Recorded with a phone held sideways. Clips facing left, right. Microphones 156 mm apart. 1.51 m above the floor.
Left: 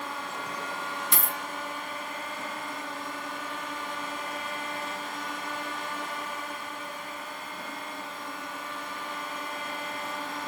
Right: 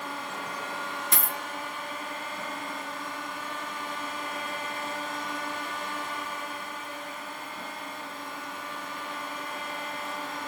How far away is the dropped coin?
About 3 m.